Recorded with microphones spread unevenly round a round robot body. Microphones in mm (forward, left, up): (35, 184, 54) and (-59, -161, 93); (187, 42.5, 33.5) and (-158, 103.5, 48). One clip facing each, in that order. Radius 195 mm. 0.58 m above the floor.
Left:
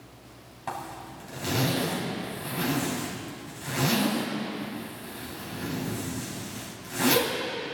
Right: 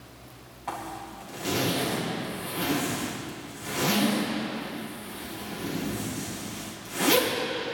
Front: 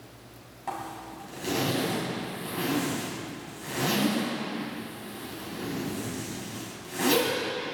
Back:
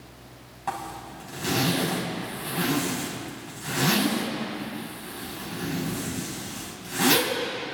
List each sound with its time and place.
0.7 s a zipper: 105° left, 5 m